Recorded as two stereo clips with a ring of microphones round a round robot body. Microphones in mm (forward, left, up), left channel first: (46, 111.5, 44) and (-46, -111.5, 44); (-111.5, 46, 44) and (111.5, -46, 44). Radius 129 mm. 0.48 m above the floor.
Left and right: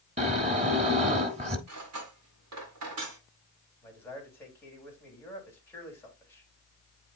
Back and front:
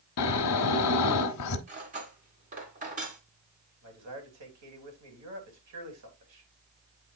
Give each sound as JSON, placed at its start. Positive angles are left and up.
{"t": 0.2, "sound": "snoring", "azimuth_deg": 180, "distance_m": 1.2}
{"t": 1.7, "sound": "cutlery clinking", "azimuth_deg": -85, "distance_m": 3.0}
{"t": 3.8, "sound": "a man speaking", "azimuth_deg": -15, "distance_m": 3.5}